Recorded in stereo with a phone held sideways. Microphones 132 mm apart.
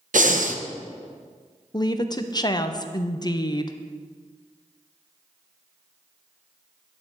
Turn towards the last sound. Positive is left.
turn(degrees=30)  # may be behind; listen again after turning